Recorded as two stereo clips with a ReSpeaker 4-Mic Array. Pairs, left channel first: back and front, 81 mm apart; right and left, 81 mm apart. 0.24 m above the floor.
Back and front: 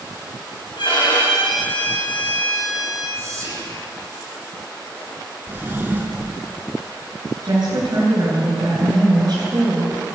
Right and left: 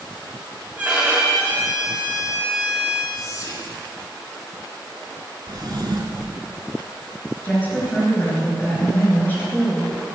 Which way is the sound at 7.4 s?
20° right.